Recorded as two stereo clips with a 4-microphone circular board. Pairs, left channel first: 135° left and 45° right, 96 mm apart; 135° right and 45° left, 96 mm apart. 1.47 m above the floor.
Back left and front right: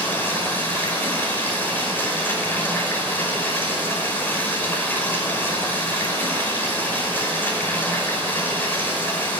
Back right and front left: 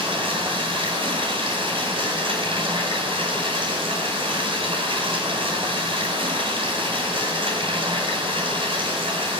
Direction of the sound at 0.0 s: 65° left.